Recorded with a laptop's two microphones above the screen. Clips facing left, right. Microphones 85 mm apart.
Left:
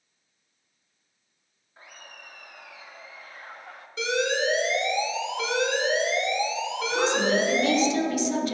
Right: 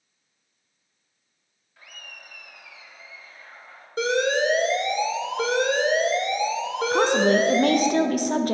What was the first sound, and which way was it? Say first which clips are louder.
Laughter: even; 30° left (ahead or behind).